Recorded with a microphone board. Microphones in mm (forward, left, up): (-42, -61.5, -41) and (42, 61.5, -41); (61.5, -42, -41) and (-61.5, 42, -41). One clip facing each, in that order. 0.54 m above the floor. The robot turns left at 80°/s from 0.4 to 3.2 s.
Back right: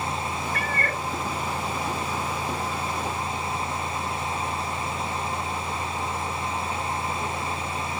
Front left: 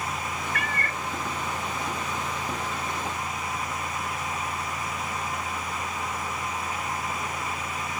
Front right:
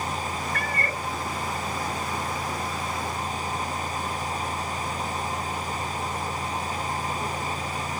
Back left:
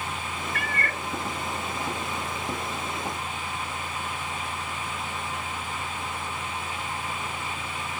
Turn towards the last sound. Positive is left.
turn(degrees=75)